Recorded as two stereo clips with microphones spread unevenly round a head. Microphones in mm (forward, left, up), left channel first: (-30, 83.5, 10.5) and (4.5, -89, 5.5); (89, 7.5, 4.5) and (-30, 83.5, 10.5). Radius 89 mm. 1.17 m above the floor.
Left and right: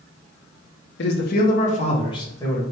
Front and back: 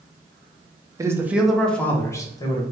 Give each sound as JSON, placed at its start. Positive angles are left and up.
{"t": 1.0, "sound": "a man speaking", "azimuth_deg": 80, "distance_m": 0.8}